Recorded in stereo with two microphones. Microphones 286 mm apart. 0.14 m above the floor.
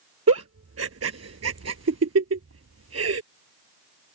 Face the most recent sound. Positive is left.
turn(degrees=-60)  # may be behind; listen again after turning